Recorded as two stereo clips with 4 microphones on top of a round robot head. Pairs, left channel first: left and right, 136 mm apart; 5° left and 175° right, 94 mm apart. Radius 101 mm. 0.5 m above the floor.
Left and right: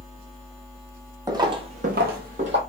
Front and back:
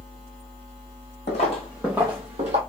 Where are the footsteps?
25° right, 1.1 m; by 2.6 s 145° right, 1.2 m.